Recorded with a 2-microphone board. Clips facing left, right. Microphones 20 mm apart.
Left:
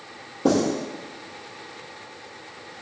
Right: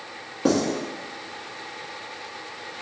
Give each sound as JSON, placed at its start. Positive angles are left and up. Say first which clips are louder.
{"t": 0.5, "sound": "writing", "louder": "left 1 dB", "side_deg": -40, "distance_m": 1.1}